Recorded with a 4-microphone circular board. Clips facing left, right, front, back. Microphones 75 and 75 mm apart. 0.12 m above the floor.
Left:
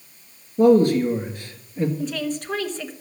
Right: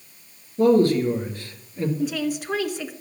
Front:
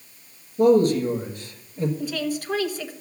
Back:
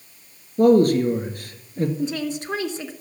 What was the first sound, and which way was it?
A man speaking, 155° left.